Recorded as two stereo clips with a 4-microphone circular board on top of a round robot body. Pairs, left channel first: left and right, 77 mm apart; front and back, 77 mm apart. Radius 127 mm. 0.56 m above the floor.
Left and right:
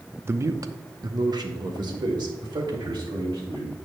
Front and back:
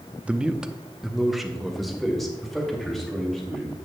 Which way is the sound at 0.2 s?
115° right.